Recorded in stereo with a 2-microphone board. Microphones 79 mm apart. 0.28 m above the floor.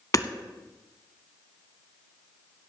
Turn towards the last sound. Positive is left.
turn(degrees=50)  # may be behind; listen again after turning